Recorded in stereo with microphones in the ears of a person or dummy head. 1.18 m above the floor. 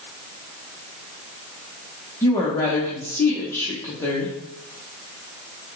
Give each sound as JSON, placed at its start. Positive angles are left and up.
{"t": 2.2, "sound": "a woman speaking", "side_deg": 20, "distance_m": 0.9}